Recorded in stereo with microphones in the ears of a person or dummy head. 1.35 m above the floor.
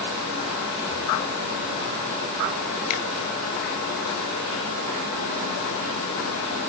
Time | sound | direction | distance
2.9 | a finger snap | 70° left (ahead or behind) | 1.4 m